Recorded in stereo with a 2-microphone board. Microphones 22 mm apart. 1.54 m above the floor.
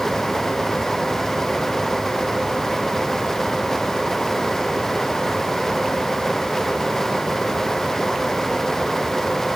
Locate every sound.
Only background noise.